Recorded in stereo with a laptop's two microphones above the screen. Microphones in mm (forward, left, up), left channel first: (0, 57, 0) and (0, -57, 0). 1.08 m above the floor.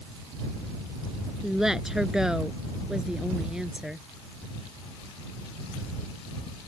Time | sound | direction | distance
1.4 | a woman speaking | 5° right (ahead or behind) | ?